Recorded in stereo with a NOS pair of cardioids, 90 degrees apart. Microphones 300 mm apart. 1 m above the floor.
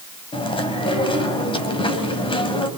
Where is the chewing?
15° left, 3 m.